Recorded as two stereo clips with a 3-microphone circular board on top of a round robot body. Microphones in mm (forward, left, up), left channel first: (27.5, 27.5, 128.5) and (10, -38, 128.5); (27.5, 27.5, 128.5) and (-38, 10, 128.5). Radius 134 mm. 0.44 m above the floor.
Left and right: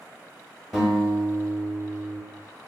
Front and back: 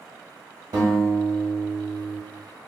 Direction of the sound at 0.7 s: 160° left.